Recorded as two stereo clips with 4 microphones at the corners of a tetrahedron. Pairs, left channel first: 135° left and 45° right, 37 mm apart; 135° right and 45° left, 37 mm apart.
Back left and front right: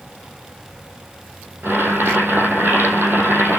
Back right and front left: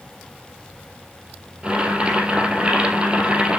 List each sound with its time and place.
1.6 s boiling: 15° right, 2.5 m